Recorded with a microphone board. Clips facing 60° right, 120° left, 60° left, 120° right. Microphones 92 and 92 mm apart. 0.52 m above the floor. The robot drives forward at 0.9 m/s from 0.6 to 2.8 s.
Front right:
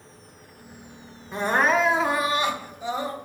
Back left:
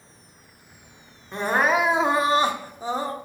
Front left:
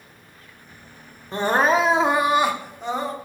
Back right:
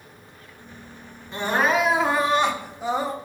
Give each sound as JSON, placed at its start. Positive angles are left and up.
{"t": 1.3, "sound": "crying", "azimuth_deg": 25, "distance_m": 1.0}